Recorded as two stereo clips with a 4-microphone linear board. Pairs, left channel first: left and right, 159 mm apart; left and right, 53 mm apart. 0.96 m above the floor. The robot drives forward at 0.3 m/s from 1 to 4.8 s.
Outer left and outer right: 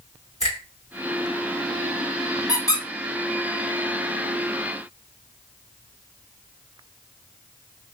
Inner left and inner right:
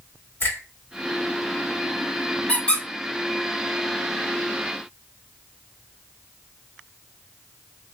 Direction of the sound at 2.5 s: 25° left (ahead or behind).